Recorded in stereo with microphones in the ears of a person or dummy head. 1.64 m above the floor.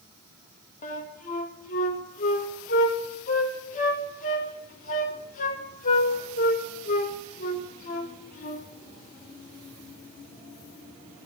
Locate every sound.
0.8 s a flute: 50° left (ahead or behind), 1.3 m